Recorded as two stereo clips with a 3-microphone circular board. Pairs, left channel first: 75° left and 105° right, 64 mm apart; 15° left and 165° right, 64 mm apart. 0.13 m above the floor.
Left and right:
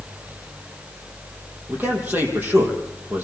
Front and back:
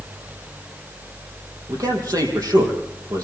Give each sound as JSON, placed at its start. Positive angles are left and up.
{"t": 1.7, "sound": "a man speaking", "azimuth_deg": -165, "distance_m": 5.0}